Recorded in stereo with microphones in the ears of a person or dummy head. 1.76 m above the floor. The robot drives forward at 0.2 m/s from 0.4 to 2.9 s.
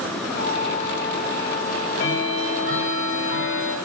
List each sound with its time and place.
1.7 s ticking: 70° left (ahead or behind), 3.5 m